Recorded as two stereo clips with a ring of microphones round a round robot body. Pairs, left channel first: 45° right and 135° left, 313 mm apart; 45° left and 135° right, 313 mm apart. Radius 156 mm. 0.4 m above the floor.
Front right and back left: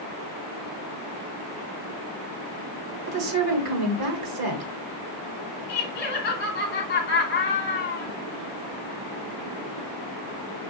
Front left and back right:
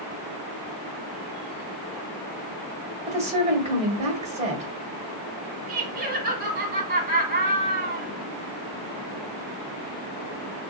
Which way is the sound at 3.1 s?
160° left.